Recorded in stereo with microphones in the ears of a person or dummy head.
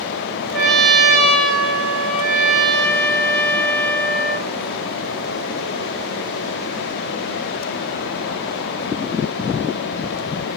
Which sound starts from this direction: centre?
A trumpet, at 0.5 s.